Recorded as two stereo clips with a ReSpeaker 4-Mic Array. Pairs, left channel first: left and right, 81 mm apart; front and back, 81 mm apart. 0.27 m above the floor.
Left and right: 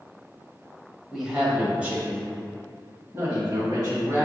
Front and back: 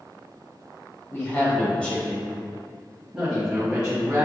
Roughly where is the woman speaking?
Ahead.